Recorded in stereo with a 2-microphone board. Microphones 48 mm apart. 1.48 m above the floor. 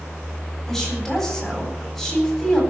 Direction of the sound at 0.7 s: 5° left (ahead or behind).